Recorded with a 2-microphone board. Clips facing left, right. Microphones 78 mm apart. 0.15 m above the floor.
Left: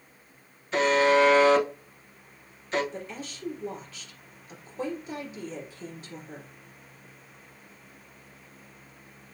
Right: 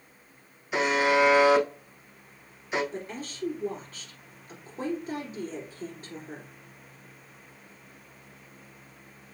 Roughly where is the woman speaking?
Right.